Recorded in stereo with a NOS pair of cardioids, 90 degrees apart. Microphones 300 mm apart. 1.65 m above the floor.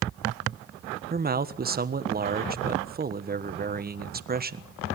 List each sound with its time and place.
1.1 s a man speaking: 30° right, 1.4 m